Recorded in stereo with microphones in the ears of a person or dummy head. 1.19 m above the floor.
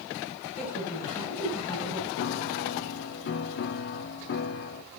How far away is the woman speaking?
About 8 m.